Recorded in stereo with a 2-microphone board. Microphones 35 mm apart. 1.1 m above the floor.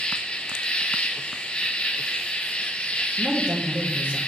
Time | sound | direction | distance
0.0 | an insect | 35° left (ahead or behind) | 0.7 m
3.1 | a man speaking | 55° right (ahead or behind) | 1.2 m